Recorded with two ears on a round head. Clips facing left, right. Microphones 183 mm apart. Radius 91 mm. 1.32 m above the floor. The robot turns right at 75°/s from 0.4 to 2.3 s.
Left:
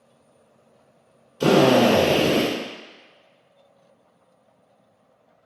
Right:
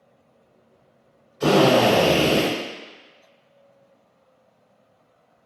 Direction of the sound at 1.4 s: 140° left.